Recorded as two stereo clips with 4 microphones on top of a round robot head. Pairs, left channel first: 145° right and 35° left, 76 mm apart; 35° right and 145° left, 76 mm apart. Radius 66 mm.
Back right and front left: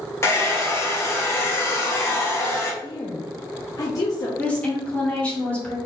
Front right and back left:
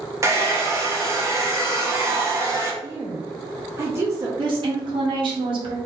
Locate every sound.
0.2 s a hair dryer: straight behind, 1.2 m
2.8 s a woman speaking: 170° right, 1.0 m
4.4 s a woman speaking: 145° left, 1.7 m